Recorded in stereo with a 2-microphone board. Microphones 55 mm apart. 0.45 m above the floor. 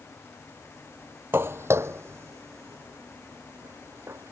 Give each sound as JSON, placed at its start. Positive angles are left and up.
{"t": 1.3, "sound": "footsteps", "side_deg": -45}